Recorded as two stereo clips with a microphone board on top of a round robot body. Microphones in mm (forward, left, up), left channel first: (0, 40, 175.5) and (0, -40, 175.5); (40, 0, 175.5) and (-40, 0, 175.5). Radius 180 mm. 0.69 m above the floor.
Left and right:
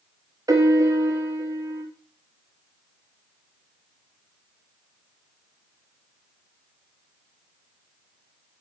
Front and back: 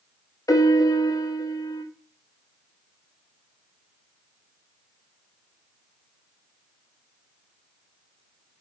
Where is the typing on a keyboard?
I don't hear typing on a keyboard.